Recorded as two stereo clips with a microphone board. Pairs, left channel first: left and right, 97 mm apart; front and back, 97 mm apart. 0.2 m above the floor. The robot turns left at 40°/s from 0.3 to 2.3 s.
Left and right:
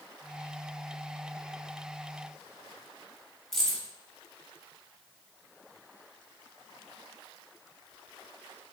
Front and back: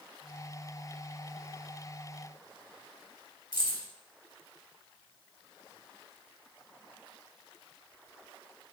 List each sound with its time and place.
3.5 s keys jangling: 5° left, 1.1 m